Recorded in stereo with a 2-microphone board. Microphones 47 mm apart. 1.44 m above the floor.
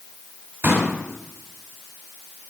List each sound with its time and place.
0.6 s a pop: 65° right (ahead or behind), 3.5 m